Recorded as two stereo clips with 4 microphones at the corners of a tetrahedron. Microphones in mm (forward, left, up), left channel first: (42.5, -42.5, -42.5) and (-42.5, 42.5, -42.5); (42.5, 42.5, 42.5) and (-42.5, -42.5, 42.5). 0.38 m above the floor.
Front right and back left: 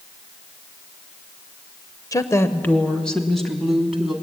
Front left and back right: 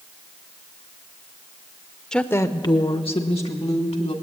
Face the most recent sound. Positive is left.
turn(degrees=50)